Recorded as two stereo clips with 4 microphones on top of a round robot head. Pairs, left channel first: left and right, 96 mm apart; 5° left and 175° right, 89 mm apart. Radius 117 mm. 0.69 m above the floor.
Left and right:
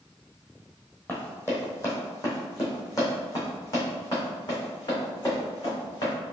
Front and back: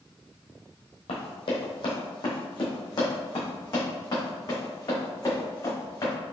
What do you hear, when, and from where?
1.1 s running footsteps: 20° left, 1.6 m; by 6.1 s 50° left, 4 m